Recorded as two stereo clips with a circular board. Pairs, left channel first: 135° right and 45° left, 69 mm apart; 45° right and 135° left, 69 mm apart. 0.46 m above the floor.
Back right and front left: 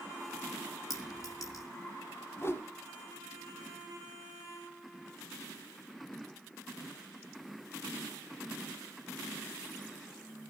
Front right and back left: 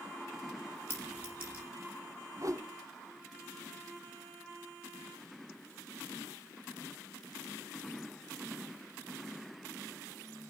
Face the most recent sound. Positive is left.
turn(degrees=175)